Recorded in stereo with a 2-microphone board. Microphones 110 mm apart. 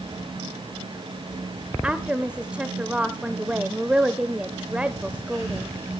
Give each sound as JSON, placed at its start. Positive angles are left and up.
{"t": 1.8, "sound": "a woman speaking", "side_deg": -10, "distance_m": 0.9}